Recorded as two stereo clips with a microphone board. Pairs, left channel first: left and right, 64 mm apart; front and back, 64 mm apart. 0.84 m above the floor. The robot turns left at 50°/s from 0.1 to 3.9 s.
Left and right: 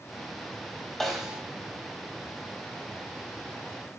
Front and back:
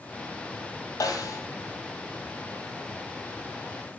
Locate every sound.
1.0 s a snare drum: 5° left, 2.5 m; by 1.4 s 15° right, 2.5 m